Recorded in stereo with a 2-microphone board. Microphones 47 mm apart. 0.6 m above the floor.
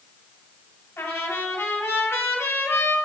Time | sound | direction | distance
1.0 | a trumpet | 75° left (ahead or behind) | 3 m